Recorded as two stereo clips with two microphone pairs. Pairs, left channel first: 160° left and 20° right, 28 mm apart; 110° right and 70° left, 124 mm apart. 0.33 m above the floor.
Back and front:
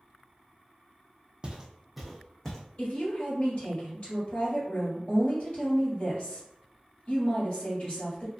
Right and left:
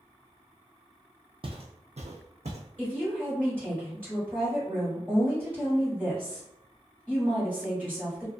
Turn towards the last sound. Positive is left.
turn(degrees=135)